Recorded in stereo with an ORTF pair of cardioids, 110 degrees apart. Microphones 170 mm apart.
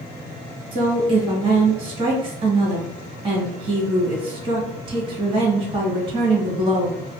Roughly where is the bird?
I don't hear a bird.